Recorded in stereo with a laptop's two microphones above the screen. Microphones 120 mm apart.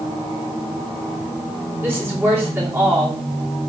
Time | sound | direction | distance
1.8 | a woman speaking | 20° right (ahead or behind) | 2.5 m